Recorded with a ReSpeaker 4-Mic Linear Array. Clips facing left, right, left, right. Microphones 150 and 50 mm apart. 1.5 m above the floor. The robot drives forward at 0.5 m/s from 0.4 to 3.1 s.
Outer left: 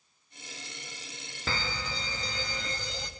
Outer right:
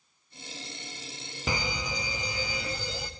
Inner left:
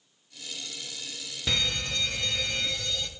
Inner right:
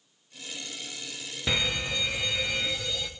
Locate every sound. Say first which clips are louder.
1.5 s a fire alarm: outer right 3 dB, inner right 1 dB; 15° right (ahead or behind), 0.8 m; by 3.1 s 10° right (ahead or behind), 1.4 m